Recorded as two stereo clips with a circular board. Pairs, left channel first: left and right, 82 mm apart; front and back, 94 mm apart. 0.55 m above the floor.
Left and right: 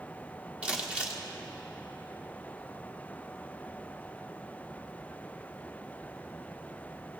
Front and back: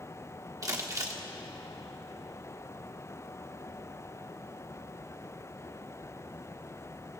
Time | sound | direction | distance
0.6 | crumpling | 155° right | 1.4 m